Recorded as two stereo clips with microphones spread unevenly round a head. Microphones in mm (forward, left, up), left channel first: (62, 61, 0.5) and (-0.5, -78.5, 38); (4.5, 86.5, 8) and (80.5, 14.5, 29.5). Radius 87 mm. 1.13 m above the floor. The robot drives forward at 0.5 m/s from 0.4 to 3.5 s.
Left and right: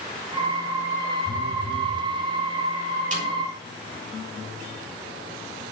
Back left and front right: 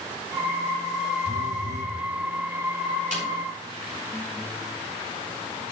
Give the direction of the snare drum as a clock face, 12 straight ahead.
2 o'clock.